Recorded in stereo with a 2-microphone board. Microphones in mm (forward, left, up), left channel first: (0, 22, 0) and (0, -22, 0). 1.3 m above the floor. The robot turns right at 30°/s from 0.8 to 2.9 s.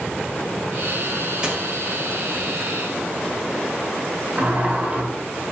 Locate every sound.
1.4 s a dropped coin: 10° right (ahead or behind), 1.2 m; by 1.6 s 15° right (ahead or behind), 1.2 m
4.4 s a sliding door: 30° right (ahead or behind), 1.0 m